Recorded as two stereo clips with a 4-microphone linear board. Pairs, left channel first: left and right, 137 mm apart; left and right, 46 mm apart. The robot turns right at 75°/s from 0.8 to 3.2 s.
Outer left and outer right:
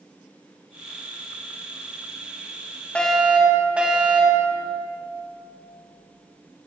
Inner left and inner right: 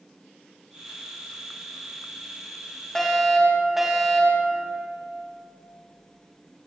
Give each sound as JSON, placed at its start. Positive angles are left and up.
{"t": 3.0, "sound": "a fire alarm", "side_deg": 10, "distance_m": 5.5}